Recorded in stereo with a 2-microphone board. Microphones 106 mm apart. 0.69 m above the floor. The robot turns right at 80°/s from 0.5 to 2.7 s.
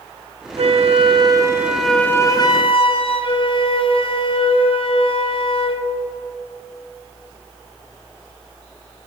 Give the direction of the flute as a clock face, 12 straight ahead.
3 o'clock.